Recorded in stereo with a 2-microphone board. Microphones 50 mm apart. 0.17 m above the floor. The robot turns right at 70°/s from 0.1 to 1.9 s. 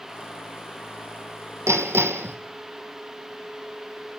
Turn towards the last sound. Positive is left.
turn(degrees=-55)  # may be behind; listen again after turning